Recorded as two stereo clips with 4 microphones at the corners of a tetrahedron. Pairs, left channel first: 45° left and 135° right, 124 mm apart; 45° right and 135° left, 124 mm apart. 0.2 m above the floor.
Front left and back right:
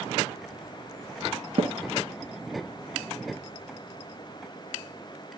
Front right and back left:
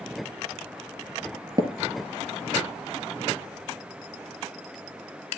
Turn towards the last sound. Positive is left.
turn(degrees=-175)